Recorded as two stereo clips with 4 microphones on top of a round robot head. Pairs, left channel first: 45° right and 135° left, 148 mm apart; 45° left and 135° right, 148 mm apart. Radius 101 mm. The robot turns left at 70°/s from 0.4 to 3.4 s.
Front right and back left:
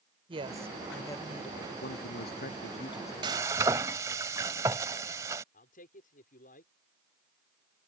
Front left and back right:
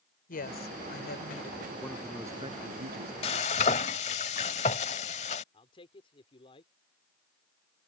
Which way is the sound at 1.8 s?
30° right.